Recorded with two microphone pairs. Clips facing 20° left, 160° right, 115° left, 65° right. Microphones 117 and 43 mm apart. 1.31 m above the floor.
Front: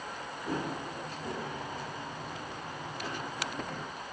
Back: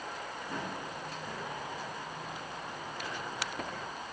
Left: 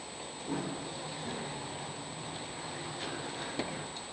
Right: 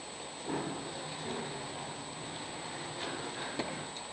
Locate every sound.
0.5 s running footsteps: 10° right, 5 m; by 3.9 s 5° left, 6 m